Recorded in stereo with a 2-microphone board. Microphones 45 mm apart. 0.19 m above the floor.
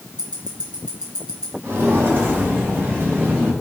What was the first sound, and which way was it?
Ticking, 20° right (ahead or behind).